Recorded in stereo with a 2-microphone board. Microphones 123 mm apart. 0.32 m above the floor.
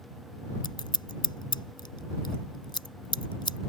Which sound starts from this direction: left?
Scissors, at 0.6 s.